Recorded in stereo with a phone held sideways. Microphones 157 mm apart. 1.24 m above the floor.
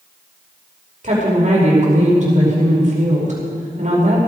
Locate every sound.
1.0 s a woman speaking: 50° right (ahead or behind), 5 m